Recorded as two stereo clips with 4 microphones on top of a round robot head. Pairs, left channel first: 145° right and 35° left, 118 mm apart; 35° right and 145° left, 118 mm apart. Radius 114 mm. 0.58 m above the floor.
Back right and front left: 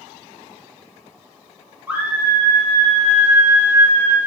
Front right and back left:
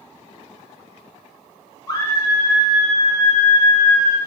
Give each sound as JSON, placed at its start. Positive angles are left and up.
{"t": 1.9, "sound": "a scream", "azimuth_deg": -25, "distance_m": 1.2}